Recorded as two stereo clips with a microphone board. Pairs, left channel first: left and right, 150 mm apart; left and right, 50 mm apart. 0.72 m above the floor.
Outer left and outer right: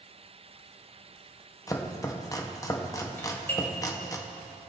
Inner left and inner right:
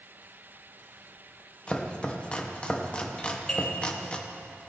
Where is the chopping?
20° left (ahead or behind), 0.7 m.